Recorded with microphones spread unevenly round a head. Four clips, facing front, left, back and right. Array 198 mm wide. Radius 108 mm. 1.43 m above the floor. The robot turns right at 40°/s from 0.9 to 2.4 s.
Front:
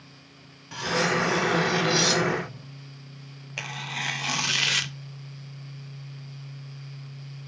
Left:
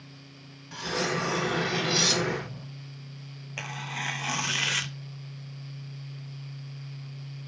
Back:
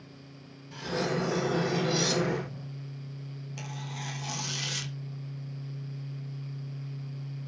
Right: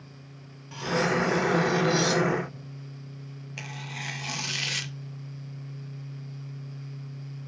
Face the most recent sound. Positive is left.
turn(degrees=35)